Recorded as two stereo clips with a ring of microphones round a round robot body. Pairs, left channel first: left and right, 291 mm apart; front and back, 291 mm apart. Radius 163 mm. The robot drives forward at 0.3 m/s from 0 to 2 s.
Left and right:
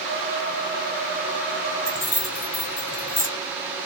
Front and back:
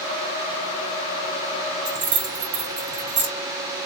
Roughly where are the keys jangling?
Behind.